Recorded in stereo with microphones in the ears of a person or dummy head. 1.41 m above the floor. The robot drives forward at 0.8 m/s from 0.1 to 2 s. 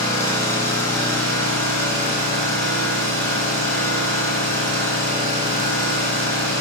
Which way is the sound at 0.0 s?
25° left (ahead or behind).